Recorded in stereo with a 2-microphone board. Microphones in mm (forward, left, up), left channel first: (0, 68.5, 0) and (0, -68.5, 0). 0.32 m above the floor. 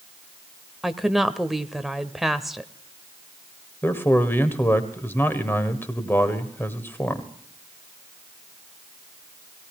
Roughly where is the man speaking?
Centre.